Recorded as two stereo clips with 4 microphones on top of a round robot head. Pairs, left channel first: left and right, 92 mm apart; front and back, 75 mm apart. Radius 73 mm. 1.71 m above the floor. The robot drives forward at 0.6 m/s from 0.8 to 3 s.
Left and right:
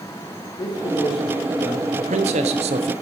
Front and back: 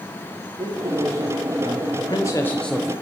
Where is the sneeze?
No sneeze in this recording.